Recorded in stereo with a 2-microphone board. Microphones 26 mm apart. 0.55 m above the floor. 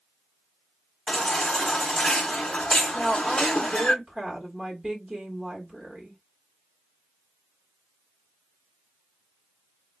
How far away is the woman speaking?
About 1.2 m.